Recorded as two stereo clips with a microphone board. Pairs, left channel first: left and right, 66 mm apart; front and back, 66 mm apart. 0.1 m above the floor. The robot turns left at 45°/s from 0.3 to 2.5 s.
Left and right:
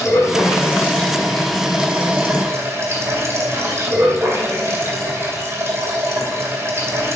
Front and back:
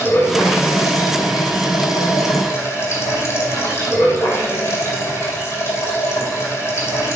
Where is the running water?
55° left, 2.5 m; by 7.2 s 45° right, 2.5 m.